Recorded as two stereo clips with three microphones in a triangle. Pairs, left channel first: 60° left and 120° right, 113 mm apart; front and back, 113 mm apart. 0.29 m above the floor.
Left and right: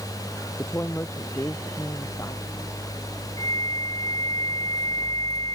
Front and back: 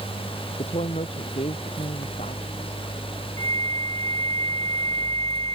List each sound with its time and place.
0.6 s a woman speaking: 10° right; by 2.8 s 5° right
3.4 s a flute: 150° right